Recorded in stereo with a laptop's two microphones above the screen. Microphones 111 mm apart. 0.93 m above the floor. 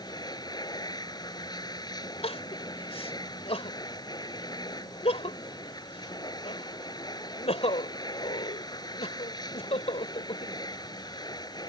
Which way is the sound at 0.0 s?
35° left (ahead or behind).